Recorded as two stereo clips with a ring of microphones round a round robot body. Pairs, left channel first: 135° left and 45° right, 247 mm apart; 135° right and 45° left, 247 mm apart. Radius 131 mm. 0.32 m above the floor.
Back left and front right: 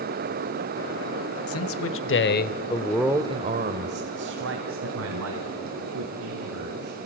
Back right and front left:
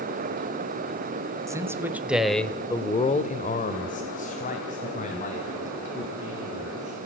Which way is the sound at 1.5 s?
120° left.